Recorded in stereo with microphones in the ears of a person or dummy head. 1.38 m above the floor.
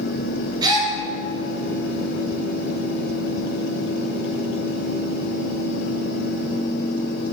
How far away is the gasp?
About 2.5 m.